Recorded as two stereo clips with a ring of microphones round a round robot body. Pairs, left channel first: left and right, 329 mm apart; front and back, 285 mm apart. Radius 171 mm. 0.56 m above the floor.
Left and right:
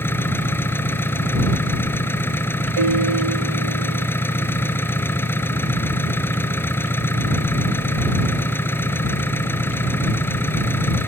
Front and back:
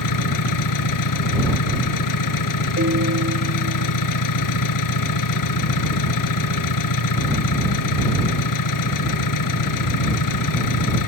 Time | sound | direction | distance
0.0 | an engine running | 5° left | ?
2.8 | a piano | 115° right | ?